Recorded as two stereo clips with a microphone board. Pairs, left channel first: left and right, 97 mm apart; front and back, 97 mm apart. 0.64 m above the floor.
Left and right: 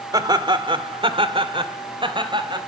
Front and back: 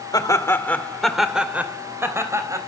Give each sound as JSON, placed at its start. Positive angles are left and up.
{"t": 0.1, "sound": "laughter", "azimuth_deg": -45, "distance_m": 2.0}